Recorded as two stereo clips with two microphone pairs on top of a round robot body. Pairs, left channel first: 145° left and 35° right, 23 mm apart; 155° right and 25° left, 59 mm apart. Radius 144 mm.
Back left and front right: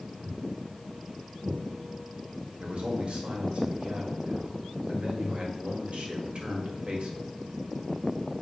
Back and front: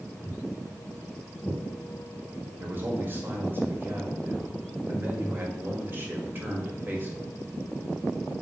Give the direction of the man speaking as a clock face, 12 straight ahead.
1 o'clock.